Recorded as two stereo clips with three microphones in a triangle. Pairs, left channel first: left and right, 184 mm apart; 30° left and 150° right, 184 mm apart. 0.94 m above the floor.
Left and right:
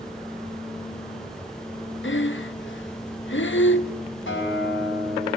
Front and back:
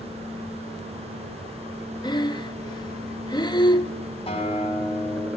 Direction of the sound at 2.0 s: 95° left.